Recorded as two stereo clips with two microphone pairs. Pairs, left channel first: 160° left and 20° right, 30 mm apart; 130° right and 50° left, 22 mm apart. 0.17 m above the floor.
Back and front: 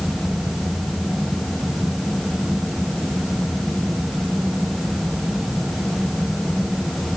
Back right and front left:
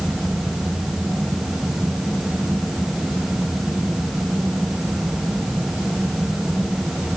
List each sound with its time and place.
Only background noise.